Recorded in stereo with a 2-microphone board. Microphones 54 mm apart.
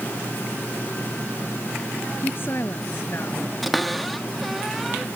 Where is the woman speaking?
40° left (ahead or behind).